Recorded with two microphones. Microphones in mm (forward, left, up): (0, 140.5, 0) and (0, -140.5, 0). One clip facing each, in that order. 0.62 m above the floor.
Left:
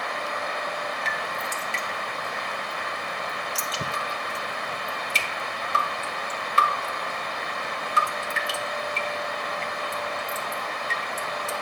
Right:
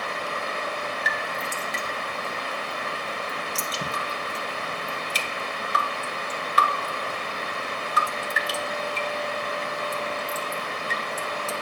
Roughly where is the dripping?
Left.